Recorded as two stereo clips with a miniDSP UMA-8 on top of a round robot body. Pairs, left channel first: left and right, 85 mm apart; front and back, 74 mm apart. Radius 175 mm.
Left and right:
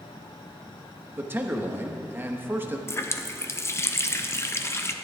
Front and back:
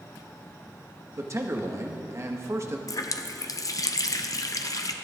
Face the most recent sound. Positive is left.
turn(degrees=35)